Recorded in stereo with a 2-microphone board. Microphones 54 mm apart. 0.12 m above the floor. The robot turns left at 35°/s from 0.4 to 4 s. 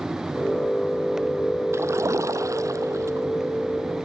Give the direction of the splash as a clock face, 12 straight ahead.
2 o'clock.